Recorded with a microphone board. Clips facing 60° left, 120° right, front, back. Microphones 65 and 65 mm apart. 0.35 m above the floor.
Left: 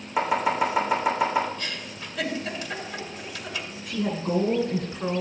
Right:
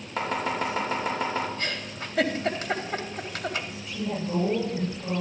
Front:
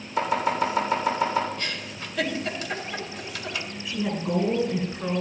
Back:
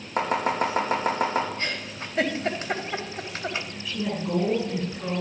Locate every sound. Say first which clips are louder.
0.2 s chopping: left 5 dB, even; 140° left, 5.5 m
1.6 s a giggle: right 2 dB, back 2 dB; 135° right, 1.9 m
3.9 s a woman speaking: left 5 dB, front 1 dB; 80° left, 4.5 m